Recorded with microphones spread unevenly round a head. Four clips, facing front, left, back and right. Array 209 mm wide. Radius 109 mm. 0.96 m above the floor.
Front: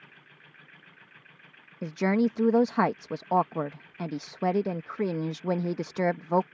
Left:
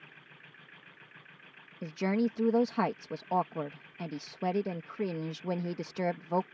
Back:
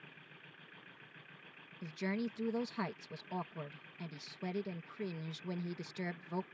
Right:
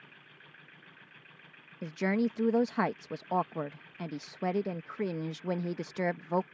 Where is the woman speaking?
5° left.